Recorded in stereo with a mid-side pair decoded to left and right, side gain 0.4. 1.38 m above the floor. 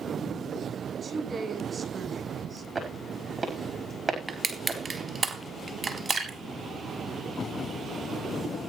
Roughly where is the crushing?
Ahead right.